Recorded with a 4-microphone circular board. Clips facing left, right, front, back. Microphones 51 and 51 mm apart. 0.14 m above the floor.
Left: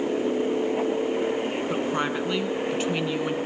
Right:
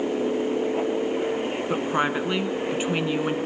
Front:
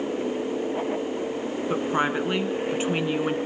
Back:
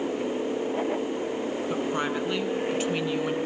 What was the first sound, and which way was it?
A woman speaking, 35° right.